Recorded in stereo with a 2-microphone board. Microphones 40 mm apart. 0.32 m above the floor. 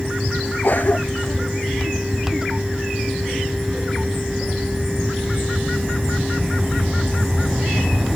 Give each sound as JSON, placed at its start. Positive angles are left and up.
{"t": 0.6, "sound": "a cough", "side_deg": 50}